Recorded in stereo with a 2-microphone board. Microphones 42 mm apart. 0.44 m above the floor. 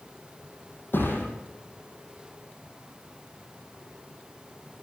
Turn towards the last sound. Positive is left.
turn(degrees=60)  # may be behind; listen again after turning